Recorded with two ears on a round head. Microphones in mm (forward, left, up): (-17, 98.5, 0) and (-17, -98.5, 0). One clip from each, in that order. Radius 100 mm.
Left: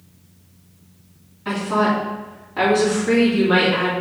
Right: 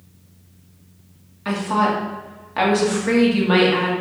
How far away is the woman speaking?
About 2.5 m.